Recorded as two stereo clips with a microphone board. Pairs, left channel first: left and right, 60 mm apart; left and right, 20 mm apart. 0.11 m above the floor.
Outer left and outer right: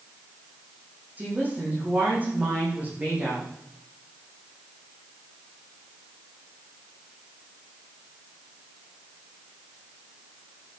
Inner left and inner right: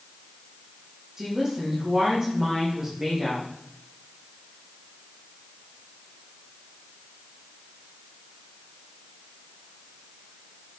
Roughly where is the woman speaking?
Right.